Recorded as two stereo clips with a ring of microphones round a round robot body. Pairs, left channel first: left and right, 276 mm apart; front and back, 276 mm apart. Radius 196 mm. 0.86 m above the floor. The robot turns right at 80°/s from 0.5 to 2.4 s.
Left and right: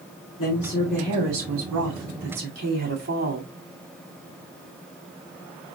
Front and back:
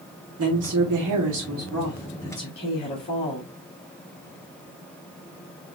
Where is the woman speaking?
145° left, 2.5 m; by 3.5 s 65° right, 2.5 m.